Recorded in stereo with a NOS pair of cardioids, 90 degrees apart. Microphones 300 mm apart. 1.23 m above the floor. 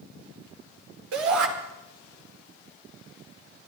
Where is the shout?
70° right, 4 m.